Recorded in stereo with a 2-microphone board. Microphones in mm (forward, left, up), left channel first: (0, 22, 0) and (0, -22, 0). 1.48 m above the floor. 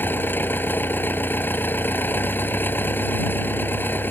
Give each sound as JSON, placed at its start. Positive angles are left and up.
{"t": 0.0, "sound": "an engine running", "side_deg": 50}